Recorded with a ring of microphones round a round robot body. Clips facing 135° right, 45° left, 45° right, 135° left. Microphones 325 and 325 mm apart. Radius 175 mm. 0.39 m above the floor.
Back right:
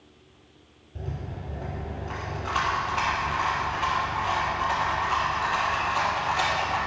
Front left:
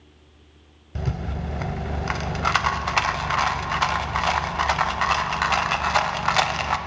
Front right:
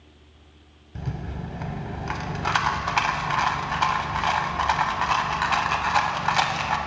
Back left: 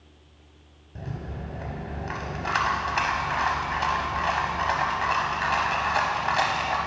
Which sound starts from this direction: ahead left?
A rattle, at 0.9 s.